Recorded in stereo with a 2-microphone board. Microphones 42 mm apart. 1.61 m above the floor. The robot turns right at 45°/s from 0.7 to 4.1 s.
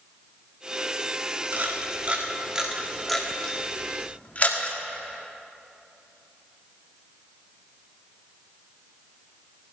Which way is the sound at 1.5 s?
50° right (ahead or behind).